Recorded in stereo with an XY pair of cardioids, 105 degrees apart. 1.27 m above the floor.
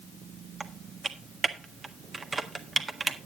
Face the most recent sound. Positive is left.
turn(degrees=-25)